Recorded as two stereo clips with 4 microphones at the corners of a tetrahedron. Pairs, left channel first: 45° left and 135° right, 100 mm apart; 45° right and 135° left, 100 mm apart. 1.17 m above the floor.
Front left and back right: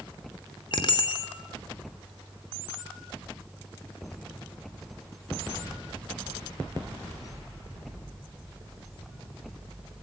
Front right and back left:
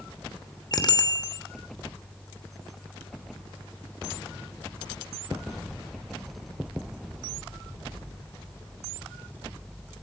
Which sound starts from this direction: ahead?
A bicycle bell, at 0.7 s.